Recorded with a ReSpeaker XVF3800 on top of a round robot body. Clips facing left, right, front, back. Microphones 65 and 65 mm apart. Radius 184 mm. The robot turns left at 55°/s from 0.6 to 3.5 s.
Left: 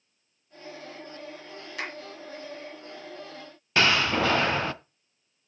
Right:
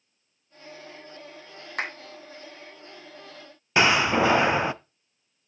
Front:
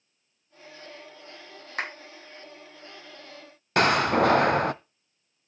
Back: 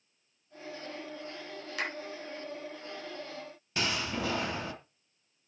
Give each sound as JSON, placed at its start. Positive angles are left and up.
{"t": 1.8, "sound": "a clap", "azimuth_deg": -50, "distance_m": 4.5}
{"t": 3.8, "sound": "a door slam", "azimuth_deg": -20, "distance_m": 0.8}